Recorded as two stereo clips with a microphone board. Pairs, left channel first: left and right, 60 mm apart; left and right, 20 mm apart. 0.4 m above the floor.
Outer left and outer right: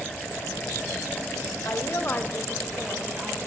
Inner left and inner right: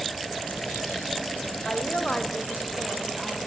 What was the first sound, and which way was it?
A woman speaking, 55° left (ahead or behind).